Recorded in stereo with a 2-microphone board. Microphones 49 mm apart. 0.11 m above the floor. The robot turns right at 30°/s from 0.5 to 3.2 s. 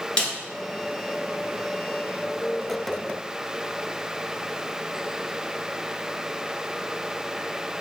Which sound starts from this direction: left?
A snare drum, at 0.2 s.